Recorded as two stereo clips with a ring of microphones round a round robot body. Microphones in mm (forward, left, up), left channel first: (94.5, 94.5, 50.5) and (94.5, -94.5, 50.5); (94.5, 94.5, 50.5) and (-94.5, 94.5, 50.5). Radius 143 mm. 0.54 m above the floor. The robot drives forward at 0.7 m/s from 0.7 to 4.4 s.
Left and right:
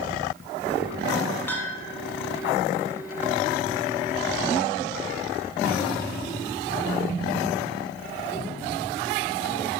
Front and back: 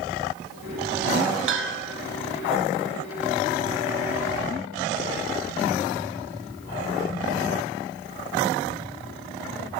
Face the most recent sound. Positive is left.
turn(degrees=175)